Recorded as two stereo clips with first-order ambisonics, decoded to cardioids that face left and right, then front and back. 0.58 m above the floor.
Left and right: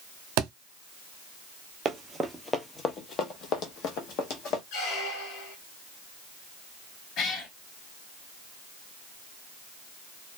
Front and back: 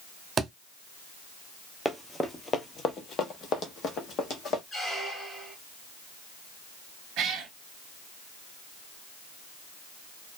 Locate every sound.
0.4 s a thud: 110° right, 0.6 m
1.9 s running footsteps: 95° right, 0.6 m; by 4.6 s 55° left, 1.4 m
4.7 s a squeak: 75° left, 1.5 m
7.2 s a cat meowing: 140° left, 1.3 m